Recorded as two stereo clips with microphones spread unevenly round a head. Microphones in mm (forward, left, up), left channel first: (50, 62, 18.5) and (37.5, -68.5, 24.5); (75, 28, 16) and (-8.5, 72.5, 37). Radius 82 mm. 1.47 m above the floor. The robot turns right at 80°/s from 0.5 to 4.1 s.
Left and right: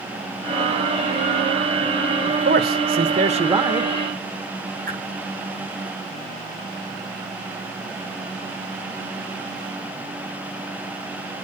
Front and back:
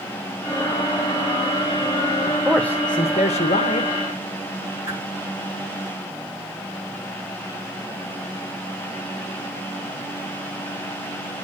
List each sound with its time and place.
2.3 s a man speaking: 145° right, 1.2 m; by 3.9 s 15° right, 1.2 m
4.9 s a whoosh: 135° right, 7 m